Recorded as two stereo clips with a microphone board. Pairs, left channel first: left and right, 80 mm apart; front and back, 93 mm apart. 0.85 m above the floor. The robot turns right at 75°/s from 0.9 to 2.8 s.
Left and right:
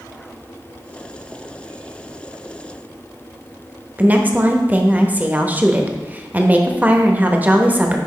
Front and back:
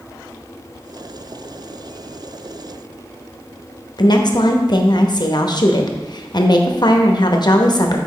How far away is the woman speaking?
About 0.8 m.